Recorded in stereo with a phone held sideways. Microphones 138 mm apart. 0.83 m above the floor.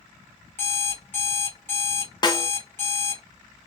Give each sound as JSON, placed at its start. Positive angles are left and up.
{"t": 0.6, "sound": "an alarm clock", "side_deg": 15, "distance_m": 1.4}
{"t": 2.2, "sound": "a snare drum", "side_deg": 30, "distance_m": 0.6}